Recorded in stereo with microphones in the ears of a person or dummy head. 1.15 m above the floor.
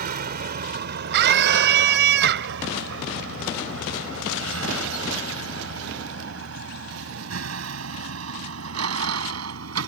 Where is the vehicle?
50° right (ahead or behind); by 9.9 s 90° right.